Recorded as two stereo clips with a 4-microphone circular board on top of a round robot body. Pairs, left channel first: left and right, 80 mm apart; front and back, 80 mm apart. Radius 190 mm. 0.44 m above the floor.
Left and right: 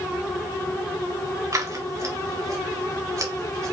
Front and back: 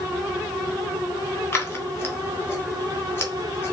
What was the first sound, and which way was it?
Scissors, 60° right.